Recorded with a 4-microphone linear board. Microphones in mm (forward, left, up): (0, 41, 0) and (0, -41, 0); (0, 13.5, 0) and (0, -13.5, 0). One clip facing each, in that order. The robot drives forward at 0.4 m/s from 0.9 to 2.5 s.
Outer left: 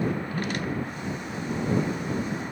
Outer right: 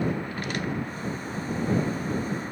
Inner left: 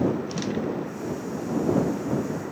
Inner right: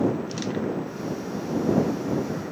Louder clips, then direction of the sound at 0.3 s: Outer left 1 dB, even; 60° left (ahead or behind).